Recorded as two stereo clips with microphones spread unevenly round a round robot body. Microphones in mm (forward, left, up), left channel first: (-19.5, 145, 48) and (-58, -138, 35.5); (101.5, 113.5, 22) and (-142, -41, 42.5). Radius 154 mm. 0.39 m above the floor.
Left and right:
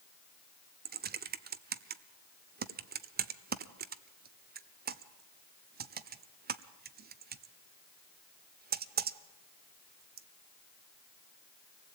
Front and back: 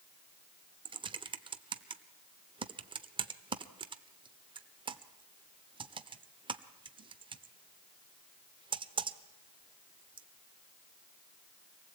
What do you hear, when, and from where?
0.8 s typing on a keyboard: 80° right, 0.8 m